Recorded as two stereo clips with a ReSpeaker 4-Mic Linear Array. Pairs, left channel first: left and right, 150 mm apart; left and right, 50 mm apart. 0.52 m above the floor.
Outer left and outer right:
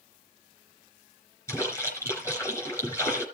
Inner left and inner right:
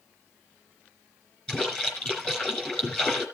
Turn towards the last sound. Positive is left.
turn(degrees=20)  # may be behind; listen again after turning